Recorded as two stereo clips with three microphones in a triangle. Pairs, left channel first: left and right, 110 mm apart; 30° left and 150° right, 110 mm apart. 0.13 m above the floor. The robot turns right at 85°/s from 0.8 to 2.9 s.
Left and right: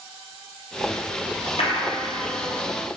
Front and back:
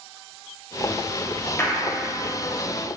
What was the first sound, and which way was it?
A clap, 95° left.